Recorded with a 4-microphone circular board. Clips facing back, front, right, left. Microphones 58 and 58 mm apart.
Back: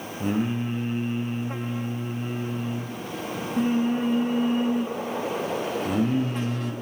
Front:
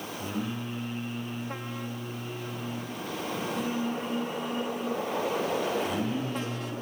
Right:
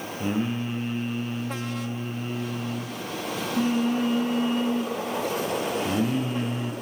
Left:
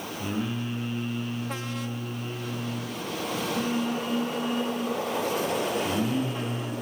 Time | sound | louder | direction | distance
0.2 | singing | back 9 dB, right 4 dB | 145° right | 2 m